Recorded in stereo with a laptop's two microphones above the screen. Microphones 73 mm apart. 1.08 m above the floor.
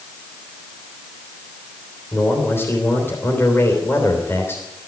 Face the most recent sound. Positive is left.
turn(degrees=30)  # may be behind; listen again after turning